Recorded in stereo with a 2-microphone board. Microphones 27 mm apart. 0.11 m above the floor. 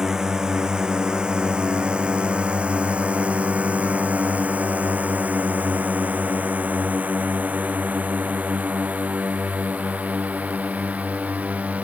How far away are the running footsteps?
I don't hear running footsteps.